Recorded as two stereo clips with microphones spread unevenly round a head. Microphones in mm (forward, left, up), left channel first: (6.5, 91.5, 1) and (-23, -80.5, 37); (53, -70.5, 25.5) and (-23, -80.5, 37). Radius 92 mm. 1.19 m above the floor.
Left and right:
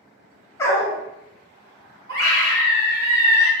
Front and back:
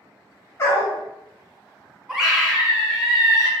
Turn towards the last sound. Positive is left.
turn(degrees=-90)